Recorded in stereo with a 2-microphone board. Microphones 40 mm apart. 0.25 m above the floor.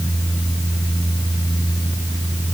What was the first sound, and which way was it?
Only background noise.